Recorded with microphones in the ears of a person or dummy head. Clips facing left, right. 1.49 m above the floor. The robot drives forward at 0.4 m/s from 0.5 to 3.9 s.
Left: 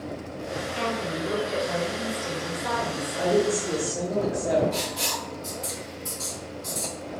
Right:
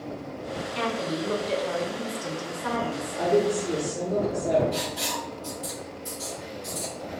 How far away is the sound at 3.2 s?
About 1.2 m.